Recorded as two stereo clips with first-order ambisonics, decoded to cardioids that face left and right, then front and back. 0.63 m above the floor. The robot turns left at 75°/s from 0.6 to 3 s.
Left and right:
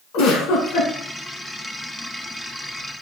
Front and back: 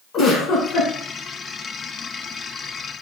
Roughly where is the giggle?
Ahead left.